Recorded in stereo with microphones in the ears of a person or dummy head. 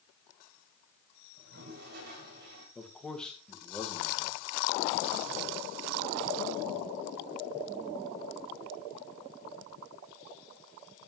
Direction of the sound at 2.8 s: 10° left (ahead or behind).